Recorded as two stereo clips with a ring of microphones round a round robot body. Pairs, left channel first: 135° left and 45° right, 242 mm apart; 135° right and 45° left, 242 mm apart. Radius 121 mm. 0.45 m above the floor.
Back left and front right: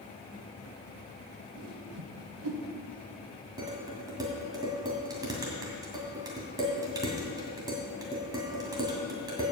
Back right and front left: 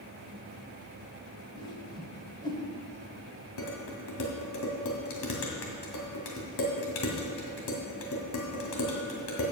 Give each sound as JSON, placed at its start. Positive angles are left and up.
{"t": 1.5, "sound": "a whoosh", "azimuth_deg": -65, "distance_m": 1.5}
{"t": 3.6, "sound": "dishes clattering", "azimuth_deg": -120, "distance_m": 2.0}